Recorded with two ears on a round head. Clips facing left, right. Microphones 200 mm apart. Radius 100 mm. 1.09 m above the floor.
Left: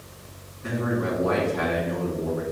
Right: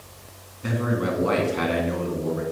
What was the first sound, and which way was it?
A man speaking, 55° right (ahead or behind).